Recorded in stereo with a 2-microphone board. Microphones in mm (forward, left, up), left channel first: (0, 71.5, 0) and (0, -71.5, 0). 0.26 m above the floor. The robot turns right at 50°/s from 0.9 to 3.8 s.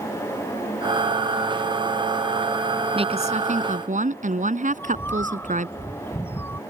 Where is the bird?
15° left (ahead or behind).